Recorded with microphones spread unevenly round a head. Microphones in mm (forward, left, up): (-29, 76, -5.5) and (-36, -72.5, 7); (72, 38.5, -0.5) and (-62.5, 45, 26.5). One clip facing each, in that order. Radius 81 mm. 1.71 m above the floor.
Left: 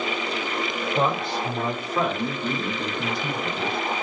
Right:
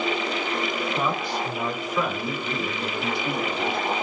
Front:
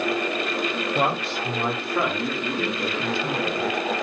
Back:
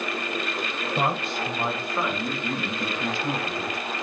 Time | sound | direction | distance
0.9 | a man speaking | 15° left | 5.5 m